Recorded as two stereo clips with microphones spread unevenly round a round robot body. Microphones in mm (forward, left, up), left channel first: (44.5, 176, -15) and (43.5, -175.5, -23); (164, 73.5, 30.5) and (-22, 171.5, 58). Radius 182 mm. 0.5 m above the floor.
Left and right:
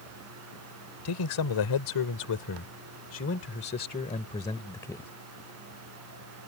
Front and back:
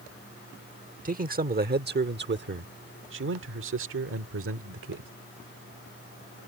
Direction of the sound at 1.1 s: 100° left.